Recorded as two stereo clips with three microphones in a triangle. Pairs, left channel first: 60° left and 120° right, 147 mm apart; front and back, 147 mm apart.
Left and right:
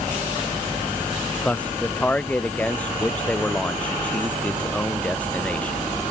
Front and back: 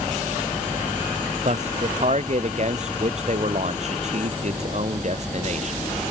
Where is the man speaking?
140° left.